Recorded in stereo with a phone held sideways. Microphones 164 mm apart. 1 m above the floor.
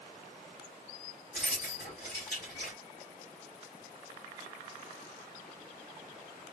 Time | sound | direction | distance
1.3 | keys jangling | 80° left | 1.9 m